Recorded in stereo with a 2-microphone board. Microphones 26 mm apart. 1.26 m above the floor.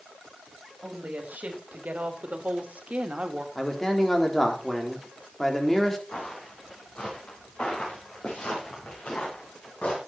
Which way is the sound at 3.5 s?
20° left (ahead or behind).